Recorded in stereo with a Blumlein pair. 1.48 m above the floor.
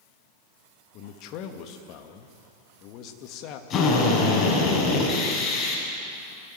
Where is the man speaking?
40° left, 2.5 m.